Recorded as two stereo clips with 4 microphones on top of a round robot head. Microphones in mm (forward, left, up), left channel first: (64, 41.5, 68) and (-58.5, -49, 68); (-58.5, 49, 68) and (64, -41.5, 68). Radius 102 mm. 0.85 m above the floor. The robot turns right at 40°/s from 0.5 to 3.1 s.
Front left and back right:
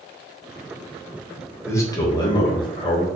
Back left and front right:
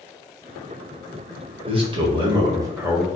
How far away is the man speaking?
About 1.0 m.